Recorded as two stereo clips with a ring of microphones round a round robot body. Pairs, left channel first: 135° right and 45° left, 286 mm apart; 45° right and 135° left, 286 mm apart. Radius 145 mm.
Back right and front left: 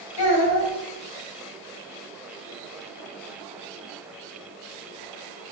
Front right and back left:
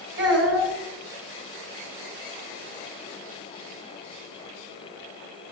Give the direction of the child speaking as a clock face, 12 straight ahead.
6 o'clock.